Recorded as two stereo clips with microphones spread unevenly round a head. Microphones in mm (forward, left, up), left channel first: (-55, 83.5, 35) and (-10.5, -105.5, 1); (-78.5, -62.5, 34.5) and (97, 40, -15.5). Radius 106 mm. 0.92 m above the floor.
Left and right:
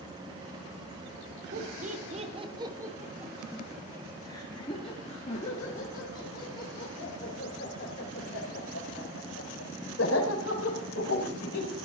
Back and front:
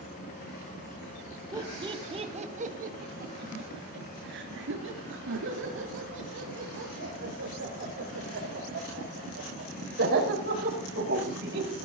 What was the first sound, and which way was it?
Laughter, 35° right.